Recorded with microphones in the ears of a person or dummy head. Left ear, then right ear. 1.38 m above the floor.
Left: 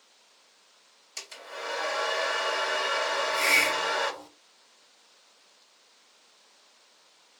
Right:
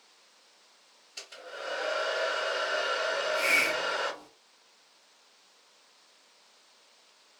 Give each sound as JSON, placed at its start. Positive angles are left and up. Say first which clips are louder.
{"t": 1.2, "sound": "a hair dryer", "louder": "left 2 dB", "side_deg": 50, "distance_m": 2.5}
{"t": 3.1, "sound": "a hiss", "louder": "left 3 dB", "side_deg": 75, "distance_m": 2.0}